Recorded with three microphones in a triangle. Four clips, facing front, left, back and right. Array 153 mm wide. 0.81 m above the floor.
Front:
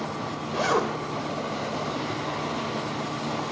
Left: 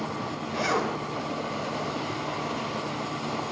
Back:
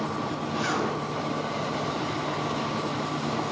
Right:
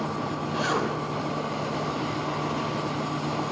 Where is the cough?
No cough in this recording.